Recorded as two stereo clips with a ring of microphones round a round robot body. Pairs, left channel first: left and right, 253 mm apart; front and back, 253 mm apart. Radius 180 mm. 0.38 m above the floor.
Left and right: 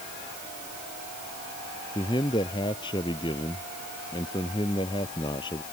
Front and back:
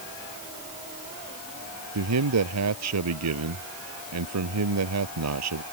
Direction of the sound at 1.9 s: 170° left.